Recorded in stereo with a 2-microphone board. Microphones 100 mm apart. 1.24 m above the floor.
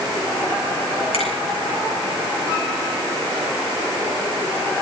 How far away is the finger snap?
About 7.5 m.